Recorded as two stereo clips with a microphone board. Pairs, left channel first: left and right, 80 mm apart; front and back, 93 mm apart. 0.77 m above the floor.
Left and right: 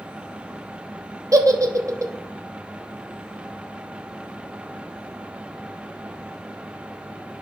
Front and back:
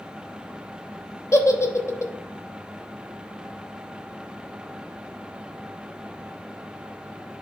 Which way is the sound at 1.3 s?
55° right.